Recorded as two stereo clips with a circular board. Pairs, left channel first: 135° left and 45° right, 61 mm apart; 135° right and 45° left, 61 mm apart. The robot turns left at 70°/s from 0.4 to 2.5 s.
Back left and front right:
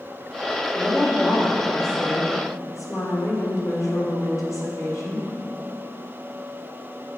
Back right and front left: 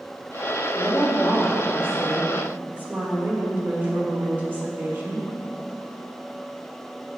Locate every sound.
0.8 s a woman speaking: 135° right, 1.3 m; by 5.3 s 105° left, 1.3 m